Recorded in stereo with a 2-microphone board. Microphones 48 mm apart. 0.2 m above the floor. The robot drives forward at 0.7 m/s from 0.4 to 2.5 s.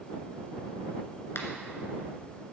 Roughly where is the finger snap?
Left.